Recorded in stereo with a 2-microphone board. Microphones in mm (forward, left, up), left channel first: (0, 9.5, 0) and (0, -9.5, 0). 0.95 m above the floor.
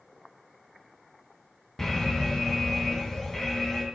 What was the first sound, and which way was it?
An alarm, 15° left (ahead or behind).